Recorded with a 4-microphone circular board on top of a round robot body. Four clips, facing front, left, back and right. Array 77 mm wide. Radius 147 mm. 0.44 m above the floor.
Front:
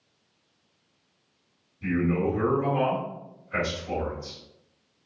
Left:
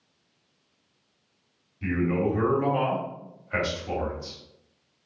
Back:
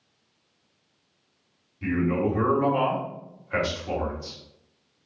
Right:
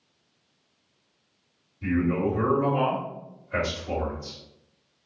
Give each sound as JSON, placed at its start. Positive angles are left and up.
{"t": 1.8, "sound": "a man speaking", "azimuth_deg": 135, "distance_m": 2.0}